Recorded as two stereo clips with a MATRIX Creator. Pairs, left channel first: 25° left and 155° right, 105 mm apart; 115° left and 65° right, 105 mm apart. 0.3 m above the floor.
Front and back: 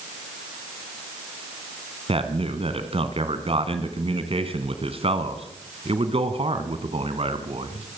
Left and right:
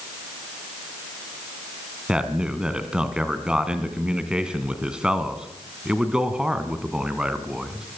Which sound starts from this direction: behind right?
A man speaking, at 2.1 s.